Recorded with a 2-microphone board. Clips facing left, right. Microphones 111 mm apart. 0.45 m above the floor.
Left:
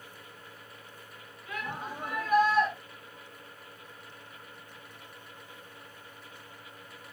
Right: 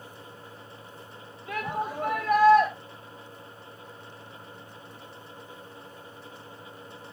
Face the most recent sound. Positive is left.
turn(degrees=-65)  # may be behind; listen again after turning